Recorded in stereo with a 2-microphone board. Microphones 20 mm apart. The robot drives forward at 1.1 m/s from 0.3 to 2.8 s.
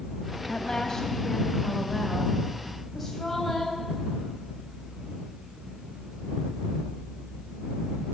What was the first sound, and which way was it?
A woman speaking, 40° left (ahead or behind).